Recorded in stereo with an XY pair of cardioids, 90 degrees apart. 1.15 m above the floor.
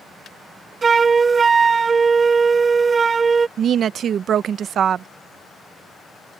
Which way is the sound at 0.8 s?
45° right.